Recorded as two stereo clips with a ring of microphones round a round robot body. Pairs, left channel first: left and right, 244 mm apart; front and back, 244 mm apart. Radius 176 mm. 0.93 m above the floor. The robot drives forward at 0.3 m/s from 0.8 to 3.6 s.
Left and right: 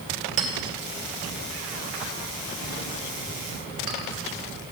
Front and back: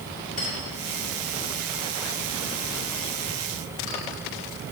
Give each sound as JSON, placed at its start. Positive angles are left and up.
{"t": 0.4, "sound": "a clink", "azimuth_deg": -70, "distance_m": 1.7}